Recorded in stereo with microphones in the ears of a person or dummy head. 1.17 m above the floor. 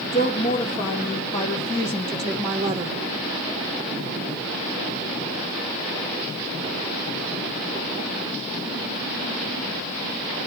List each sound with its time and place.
0.1 s a woman speaking: 40° left (ahead or behind), 2.5 m; by 3.0 s 30° right (ahead or behind), 1.1 m